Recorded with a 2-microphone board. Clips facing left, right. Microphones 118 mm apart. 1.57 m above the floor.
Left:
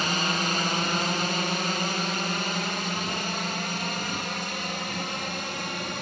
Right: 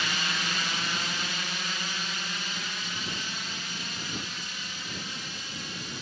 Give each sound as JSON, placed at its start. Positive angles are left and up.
{"t": 0.0, "sound": "a drone", "side_deg": 45}